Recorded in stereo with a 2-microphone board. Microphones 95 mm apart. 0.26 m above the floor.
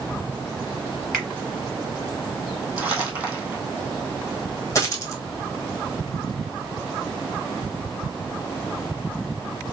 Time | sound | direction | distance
1.1 | a finger snap | 5° left (ahead or behind) | 3.5 m
2.8 | crumpling | 15° right (ahead or behind) | 2 m
4.8 | a dropped coin | 30° left (ahead or behind) | 1.3 m